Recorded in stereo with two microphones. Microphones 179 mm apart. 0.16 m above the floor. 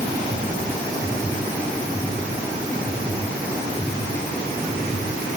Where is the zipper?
No zipper in this recording.